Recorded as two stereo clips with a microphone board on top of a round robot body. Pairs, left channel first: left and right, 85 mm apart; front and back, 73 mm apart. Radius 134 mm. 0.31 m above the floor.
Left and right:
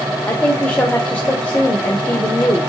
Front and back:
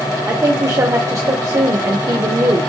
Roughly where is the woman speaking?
Behind left.